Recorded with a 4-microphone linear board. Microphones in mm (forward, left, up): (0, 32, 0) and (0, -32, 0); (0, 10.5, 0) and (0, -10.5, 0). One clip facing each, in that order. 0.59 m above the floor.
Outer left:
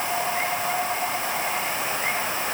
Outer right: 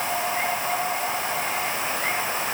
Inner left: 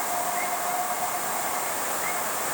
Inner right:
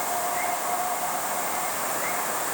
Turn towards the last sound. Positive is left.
No sound to turn to.